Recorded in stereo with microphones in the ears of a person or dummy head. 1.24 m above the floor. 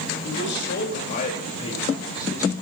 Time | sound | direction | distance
0.2 | a man speaking | 65° left (ahead or behind) | 2.5 m